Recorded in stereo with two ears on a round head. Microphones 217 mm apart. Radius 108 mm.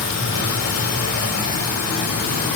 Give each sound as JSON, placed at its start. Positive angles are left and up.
{"t": 0.0, "sound": "running water", "side_deg": 70, "distance_m": 1.9}